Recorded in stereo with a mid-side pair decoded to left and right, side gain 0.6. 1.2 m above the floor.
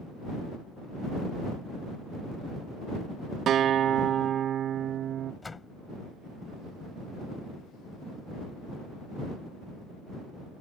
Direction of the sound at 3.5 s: 50° right.